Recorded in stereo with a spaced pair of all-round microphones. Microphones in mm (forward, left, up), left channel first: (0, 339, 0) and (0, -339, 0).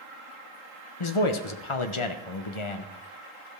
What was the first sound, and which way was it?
A man speaking, 45° left (ahead or behind).